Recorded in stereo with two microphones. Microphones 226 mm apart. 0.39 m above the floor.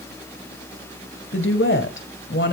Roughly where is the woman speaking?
Left.